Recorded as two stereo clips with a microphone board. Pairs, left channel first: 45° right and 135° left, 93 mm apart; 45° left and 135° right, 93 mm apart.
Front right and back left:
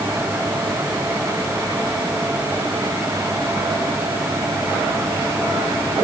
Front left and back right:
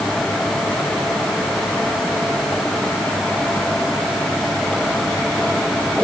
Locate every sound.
Only background noise.